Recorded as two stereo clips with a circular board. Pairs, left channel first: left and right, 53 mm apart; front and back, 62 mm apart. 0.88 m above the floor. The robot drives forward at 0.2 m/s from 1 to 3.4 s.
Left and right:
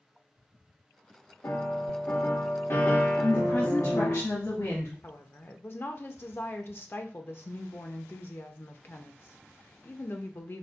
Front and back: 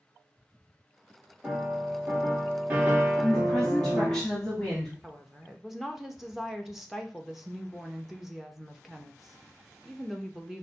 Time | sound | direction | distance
1.4 | a piano | 105° left | 1.6 m
3.2 | a woman speaking | 80° left | 1.5 m
5.0 | a woman speaking | 95° left | 0.7 m